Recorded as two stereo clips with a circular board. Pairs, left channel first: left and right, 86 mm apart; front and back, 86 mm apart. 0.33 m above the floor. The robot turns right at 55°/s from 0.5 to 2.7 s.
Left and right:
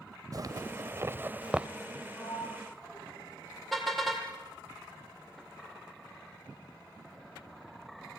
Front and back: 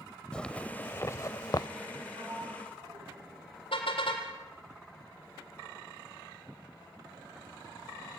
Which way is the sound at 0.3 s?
75° right.